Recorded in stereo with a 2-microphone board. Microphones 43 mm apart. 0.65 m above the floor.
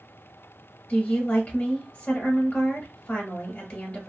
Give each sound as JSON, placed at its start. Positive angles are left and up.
{"t": 0.9, "sound": "a woman speaking", "side_deg": 25, "distance_m": 1.0}